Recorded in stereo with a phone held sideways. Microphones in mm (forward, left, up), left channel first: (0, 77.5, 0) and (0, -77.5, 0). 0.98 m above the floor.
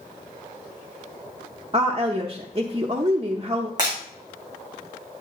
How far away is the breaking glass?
About 5 m.